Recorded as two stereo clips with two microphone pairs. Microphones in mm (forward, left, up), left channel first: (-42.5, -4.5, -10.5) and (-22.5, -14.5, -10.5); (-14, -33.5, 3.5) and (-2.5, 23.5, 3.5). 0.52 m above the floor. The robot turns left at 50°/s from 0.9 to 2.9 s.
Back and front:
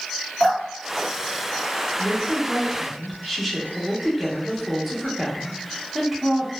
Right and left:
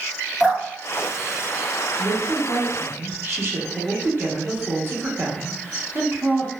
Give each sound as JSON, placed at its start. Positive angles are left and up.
{"t": 0.4, "sound": "dripping", "azimuth_deg": 170, "distance_m": 1.7}
{"t": 2.0, "sound": "a woman speaking", "azimuth_deg": 110, "distance_m": 0.9}